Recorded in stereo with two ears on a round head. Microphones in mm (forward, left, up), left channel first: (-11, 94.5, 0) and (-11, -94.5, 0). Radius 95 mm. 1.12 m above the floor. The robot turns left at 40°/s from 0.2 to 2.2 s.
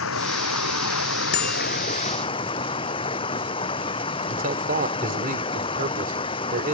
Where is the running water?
105° left; by 6.8 s 25° left.